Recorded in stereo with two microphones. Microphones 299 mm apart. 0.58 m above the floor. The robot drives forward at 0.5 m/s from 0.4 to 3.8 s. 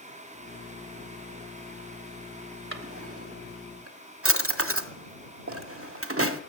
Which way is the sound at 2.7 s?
45° right (ahead or behind).